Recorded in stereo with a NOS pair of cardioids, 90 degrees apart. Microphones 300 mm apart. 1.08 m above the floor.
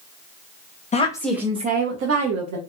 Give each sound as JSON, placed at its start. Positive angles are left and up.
{"t": 0.9, "sound": "a woman speaking", "azimuth_deg": 25, "distance_m": 0.7}